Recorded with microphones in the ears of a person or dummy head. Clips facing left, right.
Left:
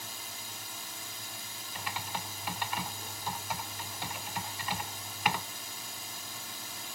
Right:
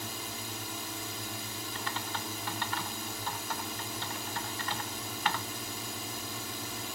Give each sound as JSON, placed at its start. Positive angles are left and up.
{"t": 0.0, "sound": "a drone", "side_deg": -55}
{"t": 1.8, "sound": "typing on a keyboard", "side_deg": 20}